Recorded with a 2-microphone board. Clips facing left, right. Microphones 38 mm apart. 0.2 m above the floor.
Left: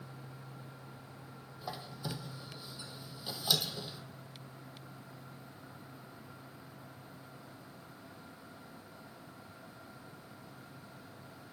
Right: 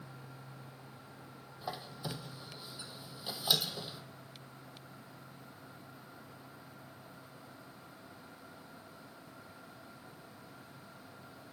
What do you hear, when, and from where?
1.6 s a squeak: 15° right (ahead or behind), 0.8 m